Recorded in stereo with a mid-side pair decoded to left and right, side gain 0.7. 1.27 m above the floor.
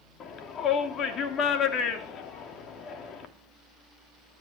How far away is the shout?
About 3.5 m.